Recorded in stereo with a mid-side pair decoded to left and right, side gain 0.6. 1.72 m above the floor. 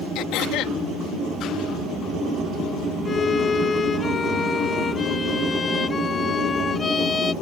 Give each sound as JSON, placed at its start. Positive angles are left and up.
{"t": 0.1, "sound": "throat clearing", "azimuth_deg": 70}
{"t": 3.0, "sound": "a violin", "azimuth_deg": 30}